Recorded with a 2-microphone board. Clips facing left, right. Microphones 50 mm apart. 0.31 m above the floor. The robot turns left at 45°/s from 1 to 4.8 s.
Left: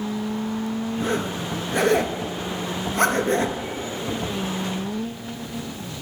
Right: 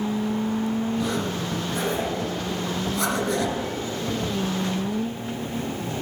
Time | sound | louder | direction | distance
1.0 | a zipper | left 1 dB | 40° left (ahead or behind) | 1.0 m